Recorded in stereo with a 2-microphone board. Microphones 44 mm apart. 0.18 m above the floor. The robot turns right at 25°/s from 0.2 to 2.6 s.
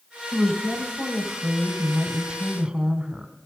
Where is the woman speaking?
5° left (ahead or behind), 1.3 m; by 3.3 s 20° right (ahead or behind), 1.3 m.